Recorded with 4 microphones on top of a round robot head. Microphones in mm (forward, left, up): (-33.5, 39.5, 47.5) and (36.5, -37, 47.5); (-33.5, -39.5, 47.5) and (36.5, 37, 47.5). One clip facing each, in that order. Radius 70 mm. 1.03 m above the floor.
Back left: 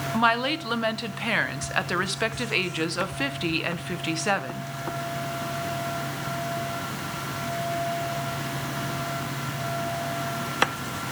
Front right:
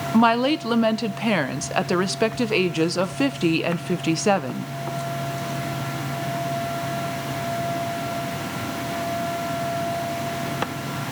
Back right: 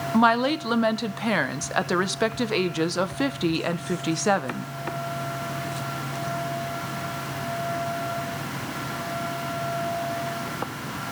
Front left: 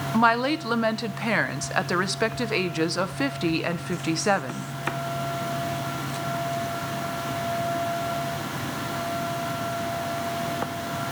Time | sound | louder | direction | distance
0.1 | a woman speaking | front right 6 dB, back right 1 dB | 55° right | 0.8 m